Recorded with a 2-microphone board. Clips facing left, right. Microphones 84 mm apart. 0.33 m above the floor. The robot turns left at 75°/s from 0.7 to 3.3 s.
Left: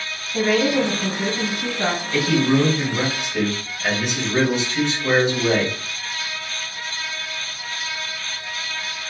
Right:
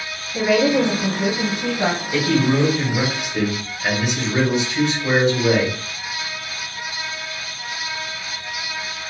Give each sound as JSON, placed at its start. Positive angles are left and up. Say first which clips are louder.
{"t": 0.3, "sound": "a woman speaking", "louder": "right 2 dB", "azimuth_deg": 45, "distance_m": 1.6}
{"t": 2.1, "sound": "a man speaking", "louder": "left 1 dB", "azimuth_deg": -90, "distance_m": 1.7}